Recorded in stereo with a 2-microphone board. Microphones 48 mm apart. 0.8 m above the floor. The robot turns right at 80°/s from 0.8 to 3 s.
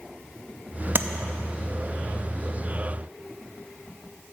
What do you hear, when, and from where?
0.9 s tapping: 50° right (ahead or behind), 0.5 m; by 1.1 s 40° right (ahead or behind), 0.5 m